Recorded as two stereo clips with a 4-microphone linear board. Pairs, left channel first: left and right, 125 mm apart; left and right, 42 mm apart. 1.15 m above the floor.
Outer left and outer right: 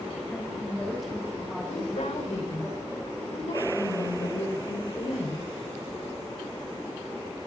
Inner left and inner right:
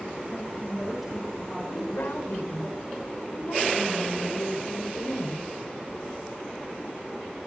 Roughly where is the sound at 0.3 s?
Centre.